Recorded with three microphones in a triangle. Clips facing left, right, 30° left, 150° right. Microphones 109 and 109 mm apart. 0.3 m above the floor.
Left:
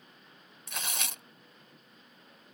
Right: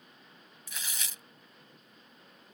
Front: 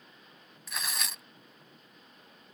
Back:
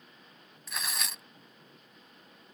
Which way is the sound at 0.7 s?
120° left.